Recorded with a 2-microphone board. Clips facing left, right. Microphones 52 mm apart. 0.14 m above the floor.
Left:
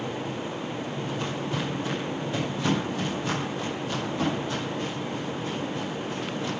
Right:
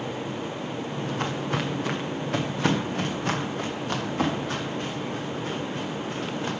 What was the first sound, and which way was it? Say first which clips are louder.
Footsteps: right 2 dB; 60° right (ahead or behind).